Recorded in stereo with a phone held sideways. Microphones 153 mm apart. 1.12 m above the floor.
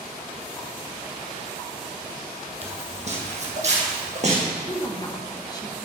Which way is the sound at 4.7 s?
25° left (ahead or behind).